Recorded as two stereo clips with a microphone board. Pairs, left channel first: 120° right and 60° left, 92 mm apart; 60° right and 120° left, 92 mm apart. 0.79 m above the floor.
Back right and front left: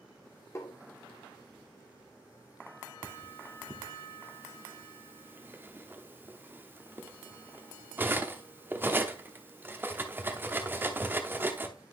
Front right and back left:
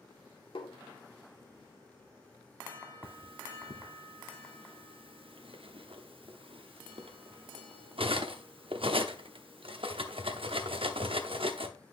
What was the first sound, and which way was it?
Tapping, 65° right.